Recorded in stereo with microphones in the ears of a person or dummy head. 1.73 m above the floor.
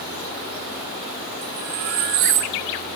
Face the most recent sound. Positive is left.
turn(degrees=-45)  # may be behind; listen again after turning